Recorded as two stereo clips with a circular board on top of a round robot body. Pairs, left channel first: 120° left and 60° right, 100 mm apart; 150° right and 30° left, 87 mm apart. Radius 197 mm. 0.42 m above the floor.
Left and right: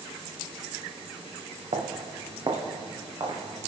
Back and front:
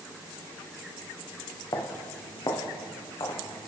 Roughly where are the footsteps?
Right.